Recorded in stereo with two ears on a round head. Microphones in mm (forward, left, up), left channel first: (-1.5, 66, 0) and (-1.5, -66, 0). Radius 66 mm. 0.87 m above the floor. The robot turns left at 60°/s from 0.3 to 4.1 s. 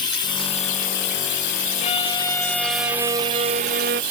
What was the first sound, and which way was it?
Running water, 150° left.